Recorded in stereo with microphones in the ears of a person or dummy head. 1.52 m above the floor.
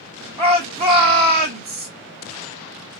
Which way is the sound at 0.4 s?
25° right (ahead or behind).